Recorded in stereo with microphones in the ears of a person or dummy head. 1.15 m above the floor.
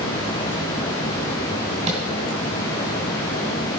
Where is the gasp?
No gasp in this recording.